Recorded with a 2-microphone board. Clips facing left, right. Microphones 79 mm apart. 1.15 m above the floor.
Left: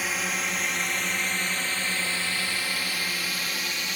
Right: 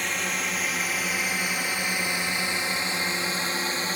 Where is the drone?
5° left (ahead or behind); by 4.0 s 35° right (ahead or behind).